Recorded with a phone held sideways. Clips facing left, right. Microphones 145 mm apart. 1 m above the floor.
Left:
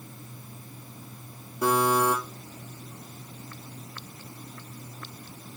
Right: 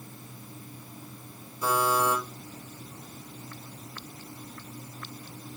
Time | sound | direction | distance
1.6 | a buzzer | 75° left (ahead or behind) | 5.5 m